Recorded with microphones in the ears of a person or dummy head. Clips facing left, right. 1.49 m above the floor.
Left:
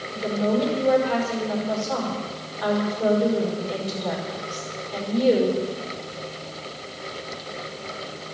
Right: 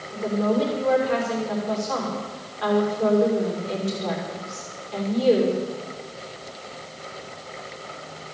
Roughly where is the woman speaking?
Right.